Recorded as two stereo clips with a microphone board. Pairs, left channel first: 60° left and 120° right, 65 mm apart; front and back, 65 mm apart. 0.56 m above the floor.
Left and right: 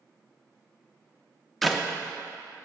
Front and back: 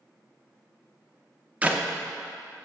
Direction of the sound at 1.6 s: 145° left.